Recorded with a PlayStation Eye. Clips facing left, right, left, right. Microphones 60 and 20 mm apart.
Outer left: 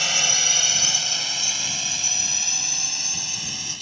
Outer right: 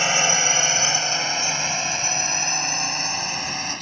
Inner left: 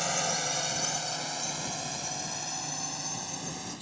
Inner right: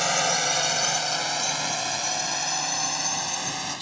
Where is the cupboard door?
I don't hear a cupboard door.